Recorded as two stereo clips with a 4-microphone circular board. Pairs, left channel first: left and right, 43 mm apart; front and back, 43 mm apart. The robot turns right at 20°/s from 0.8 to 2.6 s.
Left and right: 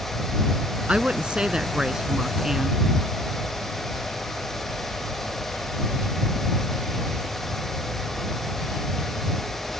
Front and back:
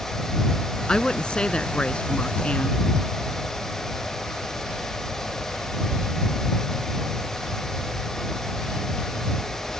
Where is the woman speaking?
55° right; by 2.8 s 20° right.